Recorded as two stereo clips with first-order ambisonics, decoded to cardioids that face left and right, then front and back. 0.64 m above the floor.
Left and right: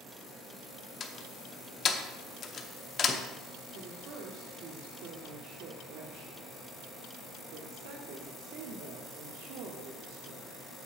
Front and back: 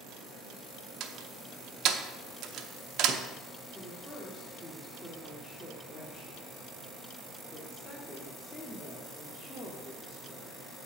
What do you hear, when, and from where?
1.0 s a door slam: 145° left, 0.8 m
3.7 s a woman speaking: 80° right, 1.1 m